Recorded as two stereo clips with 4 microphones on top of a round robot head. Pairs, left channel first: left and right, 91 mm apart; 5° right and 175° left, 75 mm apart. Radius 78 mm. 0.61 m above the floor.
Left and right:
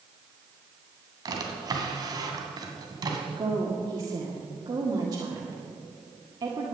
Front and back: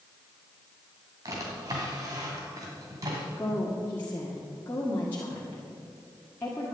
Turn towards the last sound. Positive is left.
turn(degrees=-65)